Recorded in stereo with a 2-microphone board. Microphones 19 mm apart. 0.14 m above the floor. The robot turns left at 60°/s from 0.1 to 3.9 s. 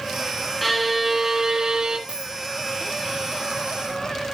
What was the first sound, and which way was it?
A violin, 10° left.